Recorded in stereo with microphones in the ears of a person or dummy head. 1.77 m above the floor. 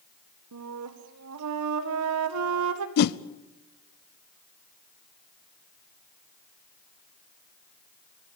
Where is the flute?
80° right, 1.7 m.